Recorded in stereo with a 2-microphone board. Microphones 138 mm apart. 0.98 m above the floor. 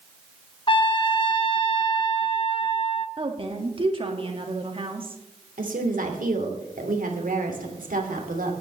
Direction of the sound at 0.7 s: 40° left (ahead or behind).